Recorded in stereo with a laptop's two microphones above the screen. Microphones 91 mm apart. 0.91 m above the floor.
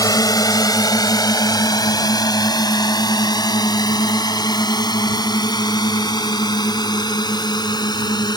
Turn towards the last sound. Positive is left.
turn(degrees=50)  # may be behind; listen again after turning